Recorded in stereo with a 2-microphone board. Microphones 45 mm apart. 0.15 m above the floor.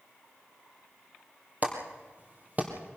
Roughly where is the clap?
Right.